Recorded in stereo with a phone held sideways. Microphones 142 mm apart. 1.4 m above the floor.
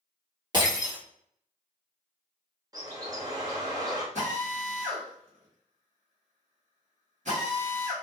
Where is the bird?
25° right (ahead or behind), 0.6 m.